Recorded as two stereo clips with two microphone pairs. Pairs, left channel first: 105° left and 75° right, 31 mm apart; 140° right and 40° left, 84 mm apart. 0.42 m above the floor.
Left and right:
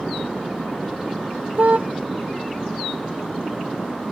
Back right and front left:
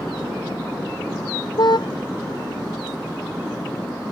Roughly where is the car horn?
Right.